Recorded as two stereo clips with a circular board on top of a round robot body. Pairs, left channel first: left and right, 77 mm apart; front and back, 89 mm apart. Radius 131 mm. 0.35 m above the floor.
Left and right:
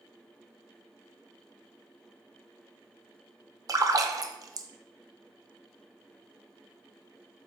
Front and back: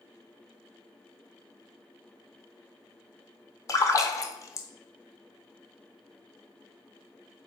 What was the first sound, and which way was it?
A splash, 50° right.